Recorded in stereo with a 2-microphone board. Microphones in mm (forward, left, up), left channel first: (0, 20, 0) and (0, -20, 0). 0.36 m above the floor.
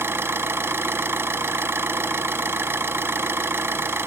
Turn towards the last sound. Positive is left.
turn(degrees=-85)